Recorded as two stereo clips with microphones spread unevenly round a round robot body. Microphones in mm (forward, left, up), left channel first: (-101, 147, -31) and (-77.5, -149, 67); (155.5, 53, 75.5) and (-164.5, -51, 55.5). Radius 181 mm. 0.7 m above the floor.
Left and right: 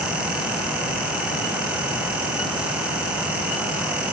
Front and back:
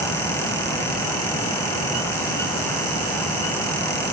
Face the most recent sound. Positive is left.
No sound to turn to.